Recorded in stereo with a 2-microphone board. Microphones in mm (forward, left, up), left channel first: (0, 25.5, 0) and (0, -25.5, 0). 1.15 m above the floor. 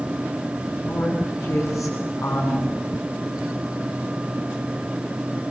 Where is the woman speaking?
75° left (ahead or behind), 8.5 m.